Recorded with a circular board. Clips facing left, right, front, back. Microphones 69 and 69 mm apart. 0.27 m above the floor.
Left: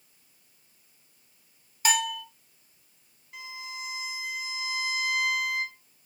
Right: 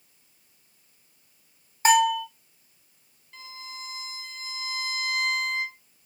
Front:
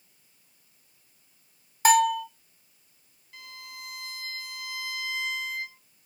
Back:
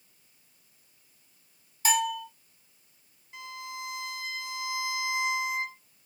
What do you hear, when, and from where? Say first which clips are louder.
1.9 s a bell: right 9 dB, front 8 dB; 35° right, 0.6 m
3.3 s a violin: left 2 dB, back 6 dB; 155° left, 1.0 m